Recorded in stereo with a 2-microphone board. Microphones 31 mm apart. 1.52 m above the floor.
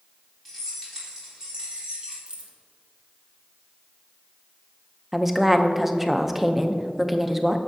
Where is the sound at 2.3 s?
35° right (ahead or behind), 1.0 m.